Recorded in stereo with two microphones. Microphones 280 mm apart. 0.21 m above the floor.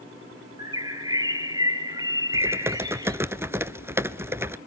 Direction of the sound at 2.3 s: 10° right (ahead or behind).